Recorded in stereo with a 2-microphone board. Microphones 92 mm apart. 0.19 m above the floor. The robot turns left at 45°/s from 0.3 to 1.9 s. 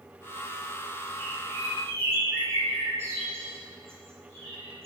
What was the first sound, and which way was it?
A bird, 5° left (ahead or behind).